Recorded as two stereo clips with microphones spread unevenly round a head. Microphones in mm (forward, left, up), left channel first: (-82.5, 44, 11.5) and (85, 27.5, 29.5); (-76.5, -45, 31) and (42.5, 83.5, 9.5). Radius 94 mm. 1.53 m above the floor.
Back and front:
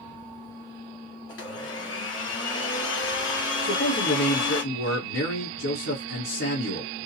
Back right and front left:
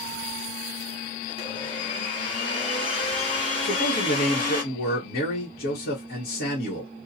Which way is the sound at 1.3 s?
175° left.